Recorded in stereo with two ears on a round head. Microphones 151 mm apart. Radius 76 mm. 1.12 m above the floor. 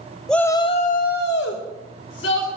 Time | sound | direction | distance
0.3 | a shout | 5° left (ahead or behind) | 0.7 m